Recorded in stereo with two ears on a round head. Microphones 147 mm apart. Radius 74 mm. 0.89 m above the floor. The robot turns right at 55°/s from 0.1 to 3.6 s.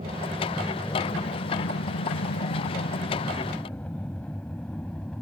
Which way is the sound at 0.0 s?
30° right (ahead or behind).